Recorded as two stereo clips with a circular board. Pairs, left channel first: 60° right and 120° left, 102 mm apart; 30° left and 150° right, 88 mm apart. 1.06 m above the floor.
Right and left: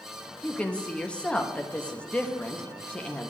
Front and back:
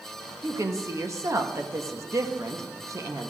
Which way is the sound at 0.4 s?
130° right.